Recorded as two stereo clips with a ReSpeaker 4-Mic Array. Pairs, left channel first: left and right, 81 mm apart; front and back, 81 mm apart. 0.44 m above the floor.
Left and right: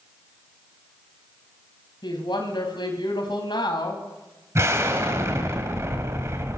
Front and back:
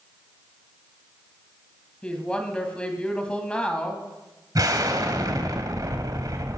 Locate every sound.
2.0 s a woman speaking: 80° left, 2.5 m
4.5 s an explosion: 145° right, 2.0 m